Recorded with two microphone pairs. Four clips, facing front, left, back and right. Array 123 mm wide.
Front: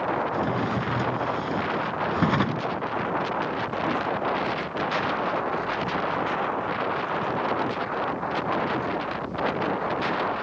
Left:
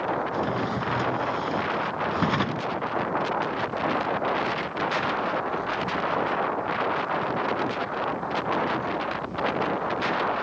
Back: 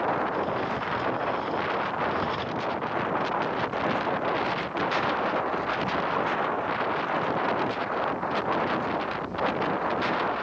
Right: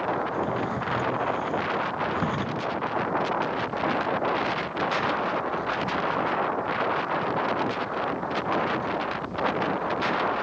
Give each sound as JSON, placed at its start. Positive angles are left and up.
{"t": 0.3, "sound": "a drawer", "azimuth_deg": 25, "distance_m": 0.8}